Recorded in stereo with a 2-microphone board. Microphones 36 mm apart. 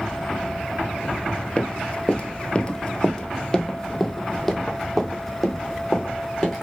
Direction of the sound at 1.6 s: 30° left (ahead or behind).